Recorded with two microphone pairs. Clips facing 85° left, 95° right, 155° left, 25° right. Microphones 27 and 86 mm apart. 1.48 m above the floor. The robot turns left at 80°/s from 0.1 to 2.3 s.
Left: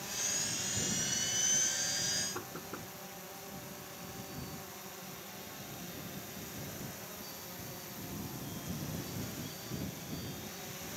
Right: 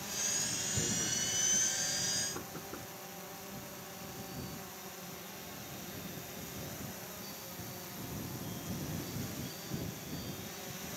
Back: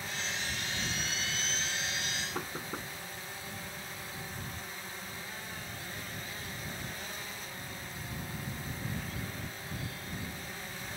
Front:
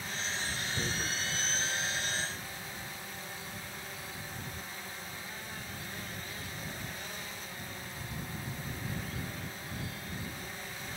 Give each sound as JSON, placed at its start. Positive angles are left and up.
{"t": 0.8, "sound": "tearing paper", "azimuth_deg": -40}
{"t": 2.4, "sound": "knocking", "azimuth_deg": 155}